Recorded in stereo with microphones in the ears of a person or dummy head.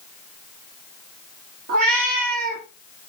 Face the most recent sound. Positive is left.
turn(degrees=-55)  # may be behind; listen again after turning